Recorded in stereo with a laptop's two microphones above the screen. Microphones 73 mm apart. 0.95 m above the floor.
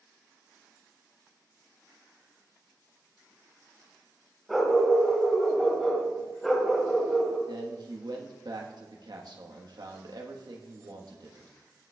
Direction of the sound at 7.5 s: 65° right (ahead or behind).